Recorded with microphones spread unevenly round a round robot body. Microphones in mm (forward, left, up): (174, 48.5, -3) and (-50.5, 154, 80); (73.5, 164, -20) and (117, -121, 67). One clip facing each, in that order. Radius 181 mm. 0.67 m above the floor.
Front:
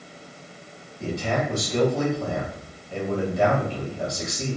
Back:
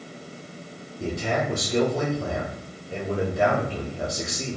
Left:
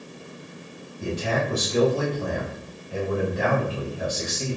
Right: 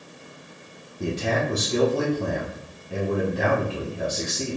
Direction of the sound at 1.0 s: 115° right.